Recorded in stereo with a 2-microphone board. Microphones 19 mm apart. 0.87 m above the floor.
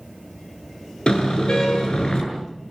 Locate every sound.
1.1 s a car horn: 50° left (ahead or behind), 7 m